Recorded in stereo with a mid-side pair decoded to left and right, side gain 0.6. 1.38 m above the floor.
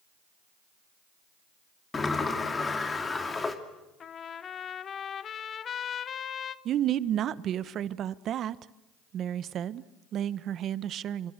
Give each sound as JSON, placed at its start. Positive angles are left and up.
{"t": 1.9, "sound": "a sliding door", "azimuth_deg": 25, "distance_m": 2.5}
{"t": 4.0, "sound": "a trumpet", "azimuth_deg": 40, "distance_m": 1.1}
{"t": 6.7, "sound": "a woman speaking", "azimuth_deg": -50, "distance_m": 1.0}